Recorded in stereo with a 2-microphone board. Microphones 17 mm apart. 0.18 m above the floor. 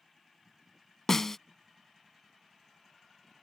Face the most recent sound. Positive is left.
turn(degrees=20)  # may be behind; listen again after turning